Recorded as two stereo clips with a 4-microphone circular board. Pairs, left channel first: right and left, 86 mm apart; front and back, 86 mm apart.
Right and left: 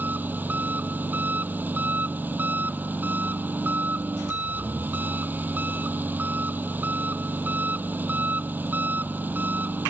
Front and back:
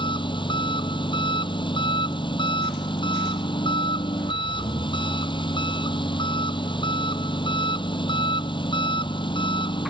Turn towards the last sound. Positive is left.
turn(degrees=20)